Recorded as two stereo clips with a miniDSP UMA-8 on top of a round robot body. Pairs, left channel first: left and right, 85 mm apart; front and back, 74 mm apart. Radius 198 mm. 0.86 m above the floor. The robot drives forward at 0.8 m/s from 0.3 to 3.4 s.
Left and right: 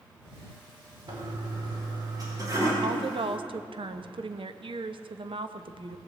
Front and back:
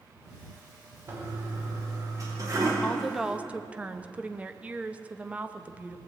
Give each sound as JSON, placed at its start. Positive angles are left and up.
{"t": 1.1, "sound": "a toilet flushing", "azimuth_deg": -125, "distance_m": 3.0}
{"t": 2.8, "sound": "a woman speaking", "azimuth_deg": -75, "distance_m": 0.9}